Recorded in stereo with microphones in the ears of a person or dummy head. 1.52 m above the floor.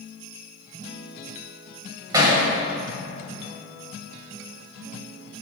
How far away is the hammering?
About 2.5 m.